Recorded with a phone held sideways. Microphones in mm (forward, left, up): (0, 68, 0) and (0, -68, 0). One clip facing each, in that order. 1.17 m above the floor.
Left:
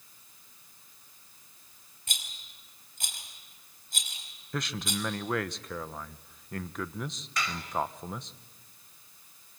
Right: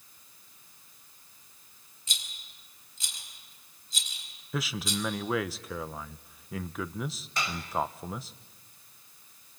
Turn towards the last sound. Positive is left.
turn(degrees=-25)  # may be behind; listen again after turning